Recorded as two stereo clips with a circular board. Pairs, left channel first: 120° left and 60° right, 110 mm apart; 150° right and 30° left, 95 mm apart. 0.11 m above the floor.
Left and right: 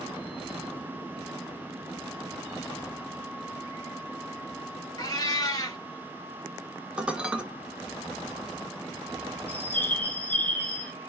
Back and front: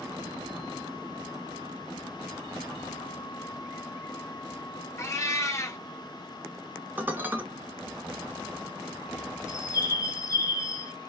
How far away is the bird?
About 1.0 m.